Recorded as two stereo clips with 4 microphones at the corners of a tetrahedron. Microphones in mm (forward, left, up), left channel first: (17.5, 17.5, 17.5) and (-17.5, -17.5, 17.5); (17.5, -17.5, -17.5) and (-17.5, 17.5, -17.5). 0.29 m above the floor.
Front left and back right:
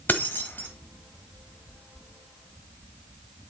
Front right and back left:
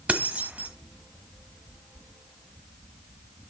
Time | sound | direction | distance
0.1 | keys jangling | 85° left | 1.3 m